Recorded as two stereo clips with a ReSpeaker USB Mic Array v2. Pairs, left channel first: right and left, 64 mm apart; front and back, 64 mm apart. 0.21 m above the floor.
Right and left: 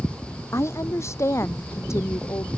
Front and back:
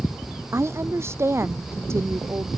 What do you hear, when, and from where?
0.5 s a woman speaking: 135° right